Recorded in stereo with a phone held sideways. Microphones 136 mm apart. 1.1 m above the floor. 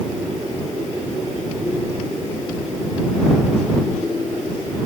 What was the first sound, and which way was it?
Only background noise.